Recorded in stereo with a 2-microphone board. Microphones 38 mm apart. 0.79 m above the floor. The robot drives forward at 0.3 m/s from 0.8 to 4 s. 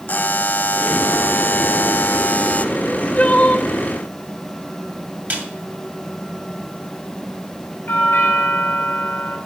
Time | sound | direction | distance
0.1 | a buzzer | 50° left (ahead or behind) | 0.5 m
2.8 | crying | 35° left (ahead or behind) | 1.0 m
5.3 | a snare drum | 50° right (ahead or behind) | 2.5 m
7.9 | a doorbell | 60° left (ahead or behind) | 3 m